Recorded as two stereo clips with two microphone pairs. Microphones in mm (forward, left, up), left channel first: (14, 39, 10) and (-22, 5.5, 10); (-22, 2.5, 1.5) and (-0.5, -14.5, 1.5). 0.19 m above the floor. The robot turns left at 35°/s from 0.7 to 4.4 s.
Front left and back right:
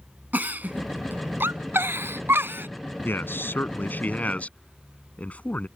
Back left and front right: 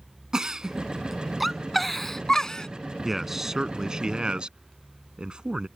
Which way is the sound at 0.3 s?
95° right.